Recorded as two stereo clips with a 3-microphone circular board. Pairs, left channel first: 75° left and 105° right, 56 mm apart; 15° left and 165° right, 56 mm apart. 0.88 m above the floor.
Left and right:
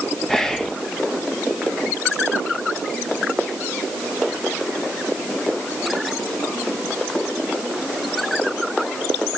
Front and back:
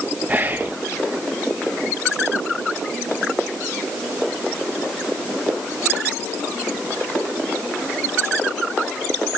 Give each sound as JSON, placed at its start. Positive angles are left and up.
{"t": 0.3, "sound": "whispering", "azimuth_deg": 150, "distance_m": 0.6}